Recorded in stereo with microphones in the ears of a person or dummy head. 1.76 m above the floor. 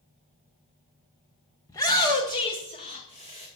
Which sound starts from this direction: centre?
A shout, at 1.7 s.